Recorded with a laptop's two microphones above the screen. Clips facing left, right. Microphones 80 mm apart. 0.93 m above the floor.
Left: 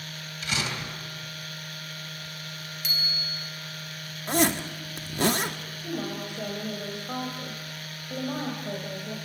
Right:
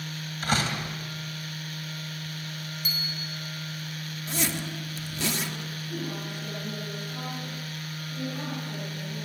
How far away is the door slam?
About 3.5 m.